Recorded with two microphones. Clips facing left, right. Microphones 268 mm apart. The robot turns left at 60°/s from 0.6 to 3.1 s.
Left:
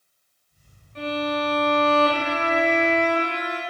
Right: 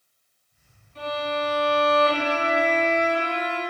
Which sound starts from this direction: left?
A violin, at 0.9 s.